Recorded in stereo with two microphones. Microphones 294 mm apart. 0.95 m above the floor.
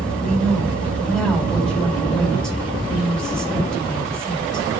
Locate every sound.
0.2 s a woman speaking: centre (ahead or behind), 4 m